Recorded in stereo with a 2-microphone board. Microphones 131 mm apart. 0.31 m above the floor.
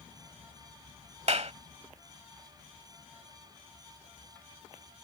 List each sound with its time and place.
1.3 s a clap: 55° right (ahead or behind)